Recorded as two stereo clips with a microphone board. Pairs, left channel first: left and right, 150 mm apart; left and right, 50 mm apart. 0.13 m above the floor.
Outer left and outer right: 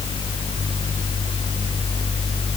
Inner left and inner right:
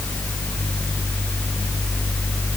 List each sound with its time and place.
Only background noise.